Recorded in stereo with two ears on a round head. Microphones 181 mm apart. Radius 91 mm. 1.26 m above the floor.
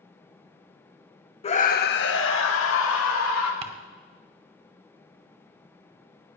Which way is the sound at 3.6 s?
35° right (ahead or behind).